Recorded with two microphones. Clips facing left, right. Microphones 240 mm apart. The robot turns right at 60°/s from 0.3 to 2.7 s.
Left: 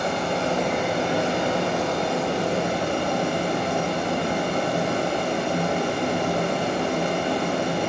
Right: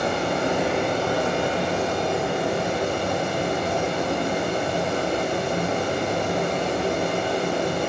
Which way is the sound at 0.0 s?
30° right.